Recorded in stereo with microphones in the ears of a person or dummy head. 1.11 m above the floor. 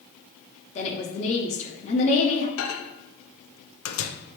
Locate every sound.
0.8 s a woman speaking: 35° left (ahead or behind), 0.7 m
2.6 s a microwave: 85° left, 0.5 m